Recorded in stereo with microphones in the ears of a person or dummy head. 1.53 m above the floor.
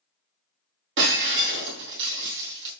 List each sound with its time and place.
1.0 s breaking glass: 65° right (ahead or behind), 3 m